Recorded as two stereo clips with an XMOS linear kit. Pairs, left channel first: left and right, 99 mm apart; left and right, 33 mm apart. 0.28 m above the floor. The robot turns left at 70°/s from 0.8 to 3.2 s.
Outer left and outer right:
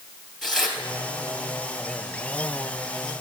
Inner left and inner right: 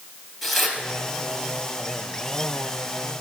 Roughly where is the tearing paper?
Centre.